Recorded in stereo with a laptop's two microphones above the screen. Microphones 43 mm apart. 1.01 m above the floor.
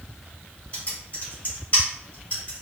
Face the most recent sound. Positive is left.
turn(degrees=40)  # may be behind; listen again after turning